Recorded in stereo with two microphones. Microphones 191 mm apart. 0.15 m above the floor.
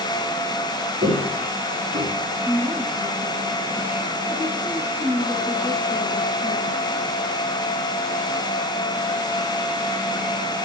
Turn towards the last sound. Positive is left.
turn(degrees=-30)  # may be behind; listen again after turning